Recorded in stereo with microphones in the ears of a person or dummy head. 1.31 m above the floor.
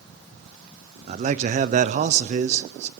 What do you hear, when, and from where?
1.1 s a man speaking: 35° right (ahead or behind), 0.6 m